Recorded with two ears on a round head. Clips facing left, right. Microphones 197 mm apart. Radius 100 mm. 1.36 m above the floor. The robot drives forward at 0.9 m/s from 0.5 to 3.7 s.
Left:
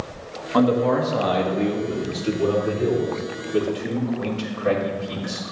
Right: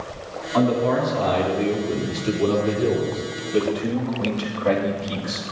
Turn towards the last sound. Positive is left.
turn(degrees=20)  # may be behind; listen again after turning